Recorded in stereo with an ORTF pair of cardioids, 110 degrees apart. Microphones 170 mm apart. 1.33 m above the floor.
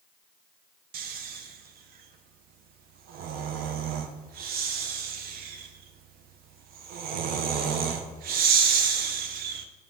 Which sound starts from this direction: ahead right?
Snoring, at 0.9 s.